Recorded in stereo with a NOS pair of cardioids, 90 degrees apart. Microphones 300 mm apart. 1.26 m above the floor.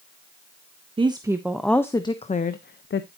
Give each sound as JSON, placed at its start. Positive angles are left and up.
{"t": 1.0, "sound": "a woman speaking", "azimuth_deg": -15, "distance_m": 1.3}